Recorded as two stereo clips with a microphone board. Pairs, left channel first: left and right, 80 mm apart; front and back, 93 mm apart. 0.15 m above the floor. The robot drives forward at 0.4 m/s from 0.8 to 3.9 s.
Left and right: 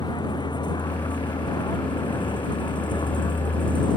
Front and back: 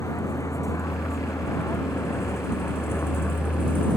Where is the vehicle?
60° left; by 4.0 s 70° left.